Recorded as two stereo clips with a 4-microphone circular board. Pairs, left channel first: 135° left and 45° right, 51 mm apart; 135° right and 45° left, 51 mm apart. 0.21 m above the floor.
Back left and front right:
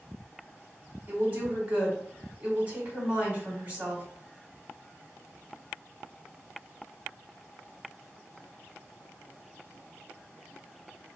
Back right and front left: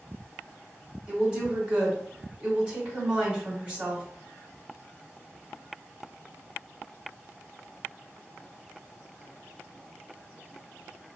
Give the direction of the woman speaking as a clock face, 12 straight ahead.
12 o'clock.